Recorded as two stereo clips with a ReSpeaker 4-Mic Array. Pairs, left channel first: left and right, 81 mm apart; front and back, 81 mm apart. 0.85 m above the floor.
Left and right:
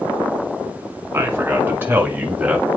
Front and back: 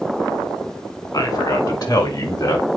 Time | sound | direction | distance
1.1 | a man speaking | 30° right | 2.5 m